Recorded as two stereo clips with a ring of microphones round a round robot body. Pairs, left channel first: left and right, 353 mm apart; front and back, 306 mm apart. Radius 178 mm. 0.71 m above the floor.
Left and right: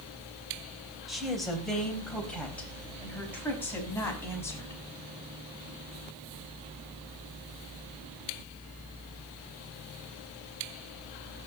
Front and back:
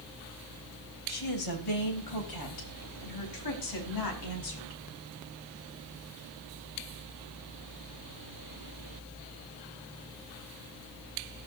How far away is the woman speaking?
About 3.5 m.